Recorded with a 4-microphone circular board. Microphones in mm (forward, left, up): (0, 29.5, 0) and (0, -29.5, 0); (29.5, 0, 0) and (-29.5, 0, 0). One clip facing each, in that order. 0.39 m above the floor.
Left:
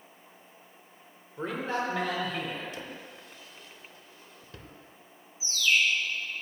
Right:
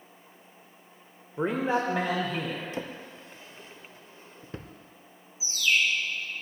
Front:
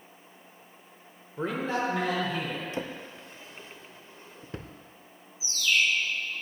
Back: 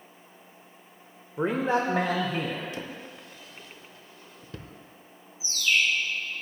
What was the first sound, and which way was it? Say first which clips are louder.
A man speaking: right 5 dB, back 4 dB; 125° right.